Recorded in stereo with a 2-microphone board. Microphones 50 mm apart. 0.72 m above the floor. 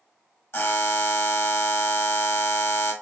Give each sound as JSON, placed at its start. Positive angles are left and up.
{"t": 0.5, "sound": "a buzzer", "side_deg": 55, "distance_m": 1.3}